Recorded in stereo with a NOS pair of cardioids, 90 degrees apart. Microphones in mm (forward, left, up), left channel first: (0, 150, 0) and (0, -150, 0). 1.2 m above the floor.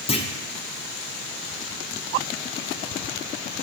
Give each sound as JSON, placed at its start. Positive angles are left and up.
{"t": 0.1, "sound": "a clunk", "azimuth_deg": 20, "distance_m": 0.7}